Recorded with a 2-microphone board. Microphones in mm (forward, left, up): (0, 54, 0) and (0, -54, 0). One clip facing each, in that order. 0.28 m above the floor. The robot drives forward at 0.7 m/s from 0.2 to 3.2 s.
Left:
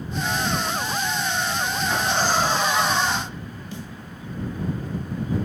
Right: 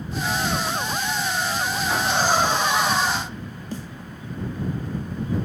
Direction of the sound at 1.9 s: 25° right (ahead or behind).